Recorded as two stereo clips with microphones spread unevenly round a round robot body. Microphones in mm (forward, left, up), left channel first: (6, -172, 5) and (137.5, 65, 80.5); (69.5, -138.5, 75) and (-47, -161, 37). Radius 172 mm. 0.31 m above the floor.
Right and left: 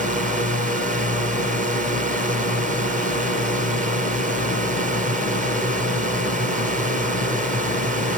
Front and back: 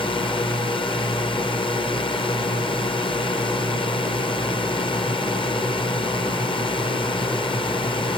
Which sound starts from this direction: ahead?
A drone, at 0.0 s.